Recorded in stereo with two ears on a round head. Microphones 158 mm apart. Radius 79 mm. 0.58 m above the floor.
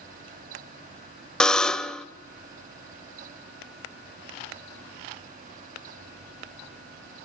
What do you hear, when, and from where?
1.4 s a buzzer: 5° left (ahead or behind), 0.6 m